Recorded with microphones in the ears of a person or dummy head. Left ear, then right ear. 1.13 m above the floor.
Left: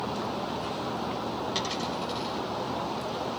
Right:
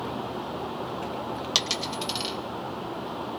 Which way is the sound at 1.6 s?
50° right (ahead or behind).